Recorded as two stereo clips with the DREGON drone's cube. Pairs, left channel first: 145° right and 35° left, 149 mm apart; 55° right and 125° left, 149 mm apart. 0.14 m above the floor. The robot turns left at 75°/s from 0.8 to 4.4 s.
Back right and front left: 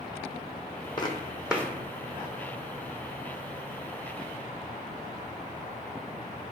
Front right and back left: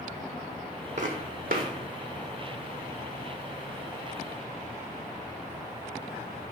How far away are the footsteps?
About 0.6 m.